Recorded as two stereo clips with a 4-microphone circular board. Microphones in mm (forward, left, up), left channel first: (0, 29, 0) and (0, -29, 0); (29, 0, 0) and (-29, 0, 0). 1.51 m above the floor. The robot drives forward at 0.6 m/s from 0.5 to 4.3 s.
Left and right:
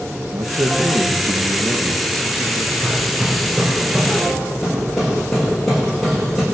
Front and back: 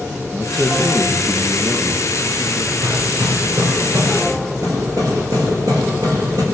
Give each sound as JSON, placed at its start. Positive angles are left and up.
{"t": 0.3, "sound": "a man speaking", "azimuth_deg": -90, "distance_m": 1.9}
{"t": 2.8, "sound": "hammering", "azimuth_deg": -175, "distance_m": 6.0}